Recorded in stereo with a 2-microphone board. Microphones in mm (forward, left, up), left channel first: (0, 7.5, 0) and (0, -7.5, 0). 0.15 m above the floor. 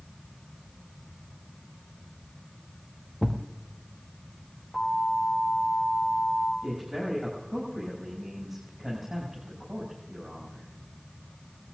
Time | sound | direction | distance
3.2 | a thud | centre (ahead or behind) | 1.5 m
4.7 | an alarm | centre (ahead or behind) | 4.5 m
6.6 | a man speaking | 25° right (ahead or behind) | 6.5 m